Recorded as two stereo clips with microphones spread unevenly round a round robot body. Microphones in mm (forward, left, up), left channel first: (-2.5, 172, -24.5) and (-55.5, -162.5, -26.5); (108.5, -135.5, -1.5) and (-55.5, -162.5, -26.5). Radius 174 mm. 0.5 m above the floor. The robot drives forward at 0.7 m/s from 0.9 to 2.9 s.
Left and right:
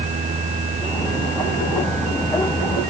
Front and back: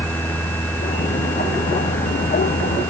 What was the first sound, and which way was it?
Only background noise.